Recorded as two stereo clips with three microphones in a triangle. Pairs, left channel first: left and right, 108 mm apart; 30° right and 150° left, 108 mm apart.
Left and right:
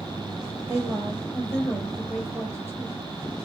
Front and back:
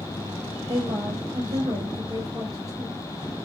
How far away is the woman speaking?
About 5.5 m.